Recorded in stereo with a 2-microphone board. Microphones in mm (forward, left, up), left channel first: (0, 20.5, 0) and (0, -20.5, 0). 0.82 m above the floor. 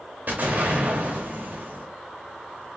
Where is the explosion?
50° right (ahead or behind), 1.2 m.